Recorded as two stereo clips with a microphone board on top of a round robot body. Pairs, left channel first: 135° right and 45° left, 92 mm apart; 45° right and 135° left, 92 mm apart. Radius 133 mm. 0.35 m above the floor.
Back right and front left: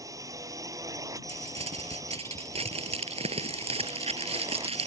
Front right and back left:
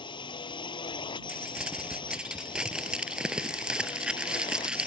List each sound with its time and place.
0.0 s a drone: 10° right
1.3 s crumpling: 55° left